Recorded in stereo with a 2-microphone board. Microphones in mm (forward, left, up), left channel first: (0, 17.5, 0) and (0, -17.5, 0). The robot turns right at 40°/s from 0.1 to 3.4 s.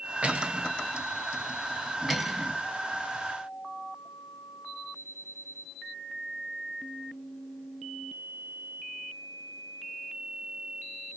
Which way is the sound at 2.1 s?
Centre (ahead or behind).